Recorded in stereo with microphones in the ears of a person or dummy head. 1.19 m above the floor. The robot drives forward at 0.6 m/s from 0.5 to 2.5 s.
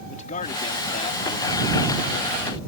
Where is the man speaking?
40° left (ahead or behind); by 2.6 s 30° left (ahead or behind).